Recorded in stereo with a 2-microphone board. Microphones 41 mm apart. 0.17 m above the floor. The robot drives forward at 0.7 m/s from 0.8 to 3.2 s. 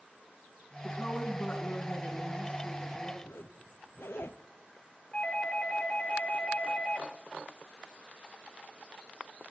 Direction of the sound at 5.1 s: 15° left (ahead or behind).